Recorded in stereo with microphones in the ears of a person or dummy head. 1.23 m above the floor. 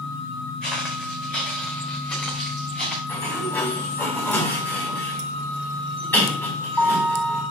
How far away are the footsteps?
About 4.5 m.